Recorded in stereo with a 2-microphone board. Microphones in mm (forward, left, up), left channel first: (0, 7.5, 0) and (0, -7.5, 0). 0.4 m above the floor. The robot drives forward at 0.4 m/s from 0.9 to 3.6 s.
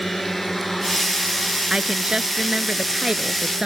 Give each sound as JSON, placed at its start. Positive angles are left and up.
{"t": 0.0, "sound": "a drone", "side_deg": 20}
{"t": 1.7, "sound": "a woman speaking", "side_deg": -45}